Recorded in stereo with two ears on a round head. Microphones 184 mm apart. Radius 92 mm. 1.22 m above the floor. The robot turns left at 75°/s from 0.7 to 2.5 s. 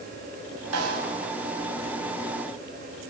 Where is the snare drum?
80° right, 5.5 m; by 1.1 s 70° right (ahead or behind), 5.5 m.